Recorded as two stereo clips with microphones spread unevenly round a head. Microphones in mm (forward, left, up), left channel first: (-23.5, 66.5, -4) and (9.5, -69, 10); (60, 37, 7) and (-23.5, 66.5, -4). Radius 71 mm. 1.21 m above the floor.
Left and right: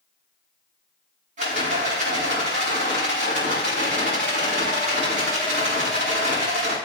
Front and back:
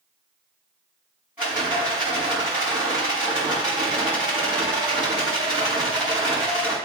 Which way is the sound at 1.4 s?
115° right.